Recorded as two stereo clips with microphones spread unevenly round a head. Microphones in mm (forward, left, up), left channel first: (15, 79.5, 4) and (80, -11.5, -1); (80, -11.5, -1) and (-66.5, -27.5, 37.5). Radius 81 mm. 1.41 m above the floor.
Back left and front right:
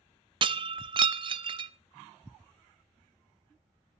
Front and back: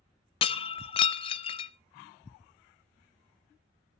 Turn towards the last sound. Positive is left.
turn(degrees=-50)